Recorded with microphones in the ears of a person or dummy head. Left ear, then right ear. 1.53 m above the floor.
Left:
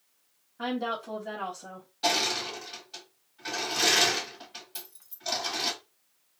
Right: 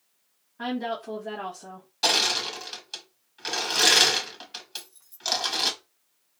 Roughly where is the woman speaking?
Centre.